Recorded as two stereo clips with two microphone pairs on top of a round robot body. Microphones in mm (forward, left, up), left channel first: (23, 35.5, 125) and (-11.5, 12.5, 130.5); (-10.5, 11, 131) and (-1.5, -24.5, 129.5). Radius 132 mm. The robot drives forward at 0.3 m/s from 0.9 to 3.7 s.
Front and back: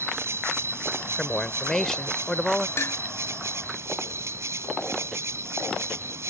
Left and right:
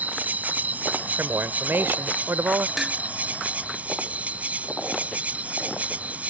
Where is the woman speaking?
45° right; by 2.7 s 50° right.